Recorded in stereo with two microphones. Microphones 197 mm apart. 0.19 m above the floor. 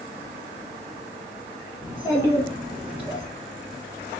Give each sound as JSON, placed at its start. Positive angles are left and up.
{"t": 1.8, "sound": "a child speaking", "side_deg": 0, "distance_m": 1.3}